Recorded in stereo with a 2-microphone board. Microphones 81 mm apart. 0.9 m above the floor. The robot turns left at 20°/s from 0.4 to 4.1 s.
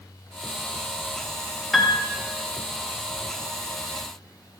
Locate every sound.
1.7 s a piano: centre (ahead or behind), 0.9 m; by 2.0 s 5° left (ahead or behind), 0.9 m